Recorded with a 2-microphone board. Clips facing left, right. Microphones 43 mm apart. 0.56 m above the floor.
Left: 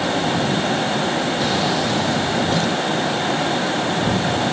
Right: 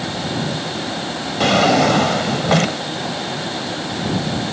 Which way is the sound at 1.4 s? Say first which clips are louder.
Right 6 dB; 85° right.